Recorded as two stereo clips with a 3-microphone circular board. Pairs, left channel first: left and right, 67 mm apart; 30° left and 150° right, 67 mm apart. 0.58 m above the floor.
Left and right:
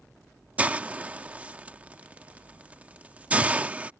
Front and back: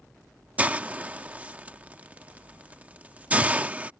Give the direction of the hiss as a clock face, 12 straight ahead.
4 o'clock.